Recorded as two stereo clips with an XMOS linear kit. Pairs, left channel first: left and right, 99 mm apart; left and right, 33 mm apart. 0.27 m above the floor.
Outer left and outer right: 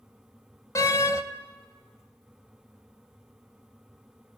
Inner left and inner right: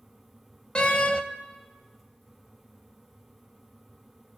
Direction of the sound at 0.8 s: 35° left (ahead or behind).